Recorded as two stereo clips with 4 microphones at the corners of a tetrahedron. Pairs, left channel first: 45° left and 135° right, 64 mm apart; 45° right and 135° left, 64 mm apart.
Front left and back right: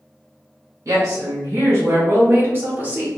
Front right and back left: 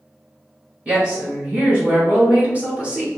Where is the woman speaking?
160° right, 1.9 m; by 3.1 s straight behind, 0.9 m.